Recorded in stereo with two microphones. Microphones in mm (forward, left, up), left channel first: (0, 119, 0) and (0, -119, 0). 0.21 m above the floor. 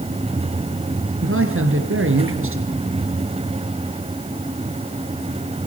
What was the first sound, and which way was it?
A man speaking, 60° right (ahead or behind).